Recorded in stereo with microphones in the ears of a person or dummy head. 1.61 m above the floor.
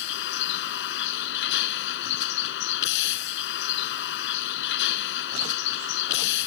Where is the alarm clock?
No alarm clock in this recording.